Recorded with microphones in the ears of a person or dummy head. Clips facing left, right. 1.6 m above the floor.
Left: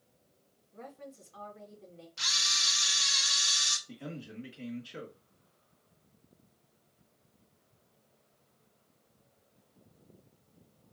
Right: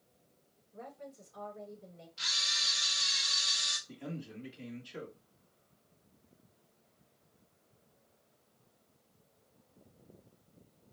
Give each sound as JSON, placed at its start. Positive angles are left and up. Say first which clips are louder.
{"t": 0.7, "sound": "a woman speaking", "louder": "left 1 dB", "side_deg": 50, "distance_m": 2.5}
{"t": 2.2, "sound": "a camera shutter", "louder": "left 3 dB", "side_deg": 65, "distance_m": 0.8}
{"t": 3.9, "sound": "a man speaking", "louder": "even", "side_deg": 35, "distance_m": 2.0}